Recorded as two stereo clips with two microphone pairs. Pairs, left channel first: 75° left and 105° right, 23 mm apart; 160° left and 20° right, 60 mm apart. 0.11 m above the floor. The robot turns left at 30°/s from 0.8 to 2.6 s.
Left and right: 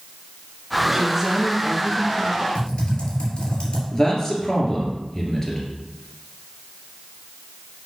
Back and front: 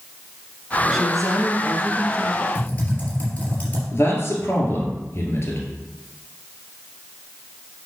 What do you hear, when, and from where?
0.9 s a woman speaking: 105° right, 1.7 m; by 2.5 s 150° right, 1.7 m
2.5 s typing on a keyboard: 100° left, 3 m
3.9 s a man speaking: 135° left, 2.5 m